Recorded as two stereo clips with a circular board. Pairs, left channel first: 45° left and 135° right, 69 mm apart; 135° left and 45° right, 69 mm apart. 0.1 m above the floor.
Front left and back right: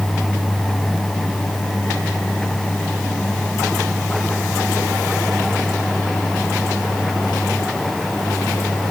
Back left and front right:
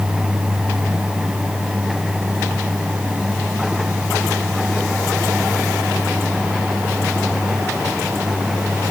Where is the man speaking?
No man speaking in this recording.